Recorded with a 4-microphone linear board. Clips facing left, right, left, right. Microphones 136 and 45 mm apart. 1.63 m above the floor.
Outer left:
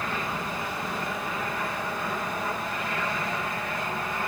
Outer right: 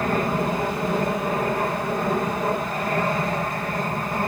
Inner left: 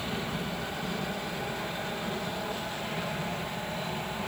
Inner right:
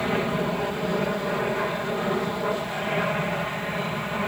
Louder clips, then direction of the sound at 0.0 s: Outer right 9 dB, inner right 9 dB; 50° right (ahead or behind).